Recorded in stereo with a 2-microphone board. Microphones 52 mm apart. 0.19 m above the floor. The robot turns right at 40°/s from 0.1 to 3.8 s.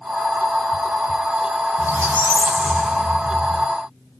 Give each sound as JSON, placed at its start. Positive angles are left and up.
{"t": 1.8, "sound": "a squeak", "azimuth_deg": -55, "distance_m": 1.5}